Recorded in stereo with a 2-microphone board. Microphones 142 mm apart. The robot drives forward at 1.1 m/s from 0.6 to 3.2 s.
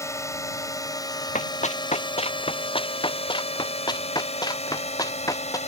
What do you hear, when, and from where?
0.0 s a drone: 20° left (ahead or behind); by 5.7 s 50° left (ahead or behind)
1.4 s running footsteps: 55° left (ahead or behind); by 5.6 s 20° left (ahead or behind)